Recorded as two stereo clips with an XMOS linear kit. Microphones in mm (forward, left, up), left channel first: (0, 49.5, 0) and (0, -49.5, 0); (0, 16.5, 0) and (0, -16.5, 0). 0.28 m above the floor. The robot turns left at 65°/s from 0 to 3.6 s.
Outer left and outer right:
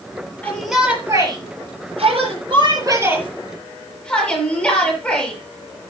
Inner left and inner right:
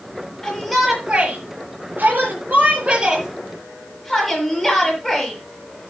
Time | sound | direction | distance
0.4 | a shout | 15° left | 8 m